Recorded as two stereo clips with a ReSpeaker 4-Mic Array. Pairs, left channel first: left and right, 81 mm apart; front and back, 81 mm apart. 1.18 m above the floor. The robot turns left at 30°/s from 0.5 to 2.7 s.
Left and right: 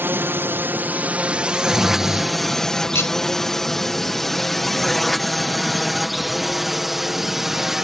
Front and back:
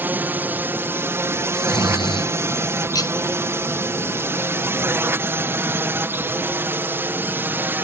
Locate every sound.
0.0 s a drone: 135° right; by 7.8 s 170° right
1.5 s snoring: 5° left; by 2.3 s 15° right
3.0 s cutlery clinking: 35° left